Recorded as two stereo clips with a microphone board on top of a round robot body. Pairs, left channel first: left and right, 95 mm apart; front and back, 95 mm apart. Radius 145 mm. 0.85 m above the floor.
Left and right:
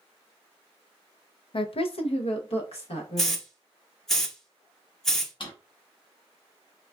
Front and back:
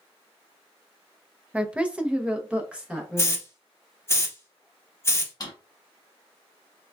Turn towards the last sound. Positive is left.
turn(degrees=50)